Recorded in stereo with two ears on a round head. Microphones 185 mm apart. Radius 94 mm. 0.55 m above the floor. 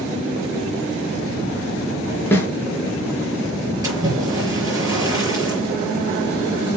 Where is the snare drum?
10° left (ahead or behind), 4 m.